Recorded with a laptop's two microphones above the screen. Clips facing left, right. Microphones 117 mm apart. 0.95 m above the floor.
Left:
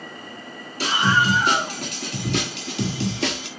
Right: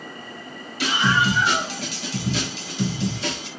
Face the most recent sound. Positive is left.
turn(degrees=85)